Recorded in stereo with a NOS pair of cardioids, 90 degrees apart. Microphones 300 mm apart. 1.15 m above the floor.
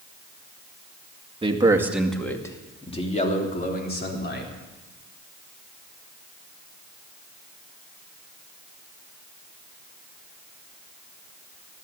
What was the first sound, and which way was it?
A man speaking, 20° right.